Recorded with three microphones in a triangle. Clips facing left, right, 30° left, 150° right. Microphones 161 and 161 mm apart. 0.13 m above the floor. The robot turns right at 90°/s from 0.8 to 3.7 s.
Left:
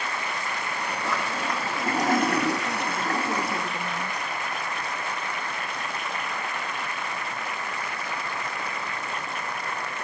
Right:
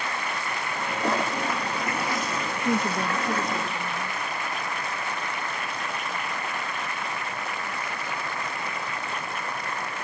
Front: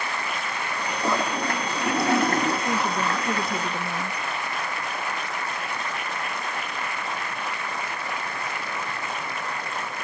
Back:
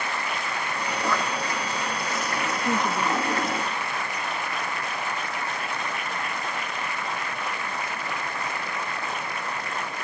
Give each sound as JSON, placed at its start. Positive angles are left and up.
{"t": 1.0, "sound": "a toilet flushing", "azimuth_deg": -45}
{"t": 2.6, "sound": "a woman speaking", "azimuth_deg": -75}